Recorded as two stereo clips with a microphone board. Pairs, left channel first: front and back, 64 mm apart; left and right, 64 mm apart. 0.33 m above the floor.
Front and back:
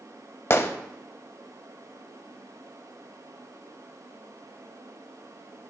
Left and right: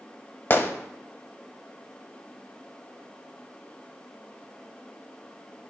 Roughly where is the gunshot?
Ahead left.